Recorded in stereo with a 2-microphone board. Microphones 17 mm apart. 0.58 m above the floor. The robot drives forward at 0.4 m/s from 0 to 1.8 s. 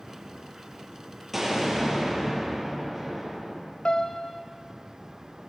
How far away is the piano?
About 2.0 m.